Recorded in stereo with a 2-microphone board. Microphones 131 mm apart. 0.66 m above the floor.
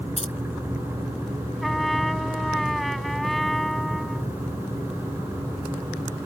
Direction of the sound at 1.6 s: Centre (ahead or behind).